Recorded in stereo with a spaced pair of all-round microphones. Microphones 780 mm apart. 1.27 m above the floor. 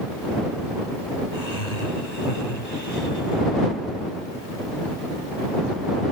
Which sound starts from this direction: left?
Laughter, at 1.3 s.